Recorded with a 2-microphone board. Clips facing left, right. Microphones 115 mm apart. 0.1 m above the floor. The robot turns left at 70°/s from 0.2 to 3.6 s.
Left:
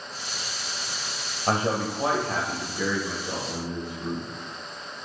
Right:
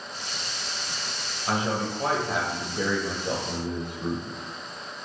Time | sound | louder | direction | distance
1.5 | a man speaking | left 2 dB | 55° left | 2.5 m